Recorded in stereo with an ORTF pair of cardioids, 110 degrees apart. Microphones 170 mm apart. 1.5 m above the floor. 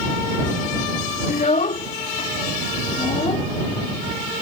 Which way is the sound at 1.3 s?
50° left.